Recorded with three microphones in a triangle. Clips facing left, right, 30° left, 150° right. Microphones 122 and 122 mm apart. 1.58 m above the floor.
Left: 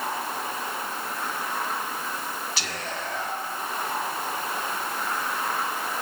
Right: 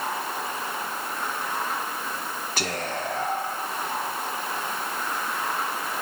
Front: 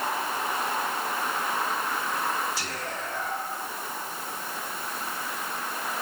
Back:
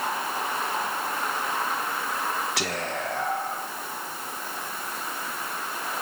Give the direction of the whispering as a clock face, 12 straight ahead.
4 o'clock.